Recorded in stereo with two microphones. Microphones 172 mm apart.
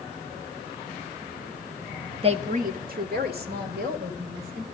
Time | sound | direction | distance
2.2 | a woman speaking | 35° right (ahead or behind) | 0.6 m